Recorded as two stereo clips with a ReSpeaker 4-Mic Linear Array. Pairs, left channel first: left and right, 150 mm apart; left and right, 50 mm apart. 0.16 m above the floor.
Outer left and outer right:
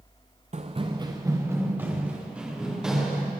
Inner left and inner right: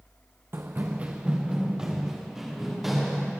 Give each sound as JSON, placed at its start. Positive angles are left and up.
{"t": 0.5, "sound": "running footsteps", "side_deg": -50, "distance_m": 0.8}